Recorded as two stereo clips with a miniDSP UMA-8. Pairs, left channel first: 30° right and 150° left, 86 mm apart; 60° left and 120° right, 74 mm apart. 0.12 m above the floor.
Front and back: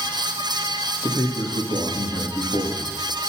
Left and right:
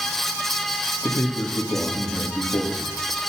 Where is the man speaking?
5° left, 4 m.